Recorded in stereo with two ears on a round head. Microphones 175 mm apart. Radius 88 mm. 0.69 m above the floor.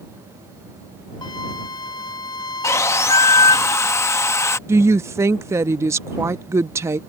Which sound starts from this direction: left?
A flute, at 1.2 s.